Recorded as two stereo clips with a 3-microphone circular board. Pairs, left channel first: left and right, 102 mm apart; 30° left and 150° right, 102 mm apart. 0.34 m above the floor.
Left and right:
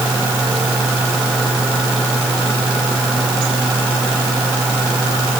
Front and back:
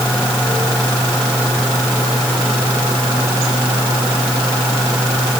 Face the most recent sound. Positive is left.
No sound to turn to.